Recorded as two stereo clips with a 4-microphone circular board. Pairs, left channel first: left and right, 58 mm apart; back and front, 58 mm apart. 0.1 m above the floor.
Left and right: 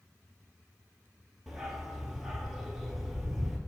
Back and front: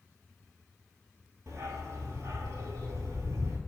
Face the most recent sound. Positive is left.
turn(degrees=-10)